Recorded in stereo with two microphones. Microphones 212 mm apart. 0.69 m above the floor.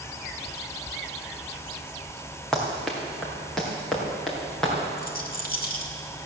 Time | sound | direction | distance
2.5 | running footsteps | centre (ahead or behind) | 2.5 m
5.0 | a rattle | 45° left (ahead or behind) | 1.5 m